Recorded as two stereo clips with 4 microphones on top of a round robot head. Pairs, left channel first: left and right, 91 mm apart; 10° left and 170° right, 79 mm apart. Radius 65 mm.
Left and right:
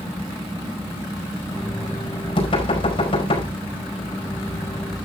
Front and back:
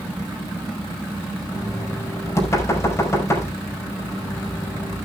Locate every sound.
1.5 s knocking: 65° left, 5.5 m